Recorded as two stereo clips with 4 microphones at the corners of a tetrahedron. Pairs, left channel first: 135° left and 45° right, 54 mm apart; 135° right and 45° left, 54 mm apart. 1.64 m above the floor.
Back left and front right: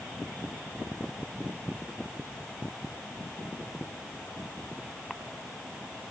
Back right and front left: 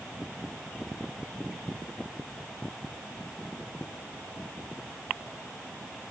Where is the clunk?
No clunk in this recording.